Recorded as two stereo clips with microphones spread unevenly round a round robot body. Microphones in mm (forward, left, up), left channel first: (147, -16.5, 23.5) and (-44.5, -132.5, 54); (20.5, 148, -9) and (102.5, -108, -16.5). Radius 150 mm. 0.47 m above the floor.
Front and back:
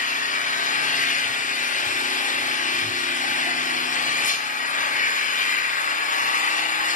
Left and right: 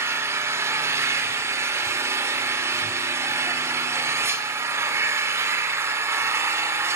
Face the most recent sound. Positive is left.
turn(degrees=5)